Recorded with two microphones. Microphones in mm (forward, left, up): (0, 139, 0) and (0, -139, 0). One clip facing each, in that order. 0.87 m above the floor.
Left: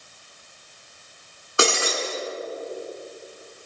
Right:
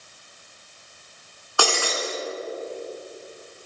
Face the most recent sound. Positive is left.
turn(degrees=25)  # may be behind; listen again after turning